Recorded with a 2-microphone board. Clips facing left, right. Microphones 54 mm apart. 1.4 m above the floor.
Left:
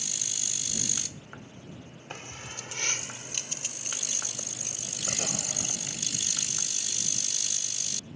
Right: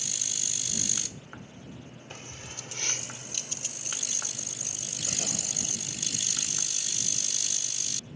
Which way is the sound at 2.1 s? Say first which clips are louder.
Left 4 dB; 35° left (ahead or behind).